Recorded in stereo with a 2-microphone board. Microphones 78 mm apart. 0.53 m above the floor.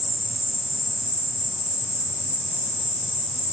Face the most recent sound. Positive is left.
turn(degrees=-40)  # may be behind; listen again after turning